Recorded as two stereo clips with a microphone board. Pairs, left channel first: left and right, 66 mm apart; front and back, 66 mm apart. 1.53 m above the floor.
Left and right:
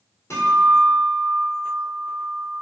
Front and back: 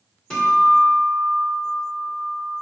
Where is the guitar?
75° left, 1.5 m.